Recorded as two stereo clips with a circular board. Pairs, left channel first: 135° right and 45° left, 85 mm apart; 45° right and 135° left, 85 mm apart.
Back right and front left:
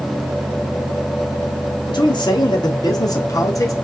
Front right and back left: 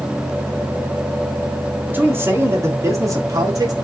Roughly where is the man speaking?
Behind.